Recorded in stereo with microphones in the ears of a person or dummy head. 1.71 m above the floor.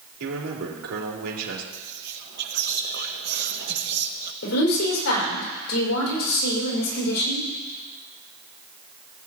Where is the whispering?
60° right (ahead or behind), 0.8 m.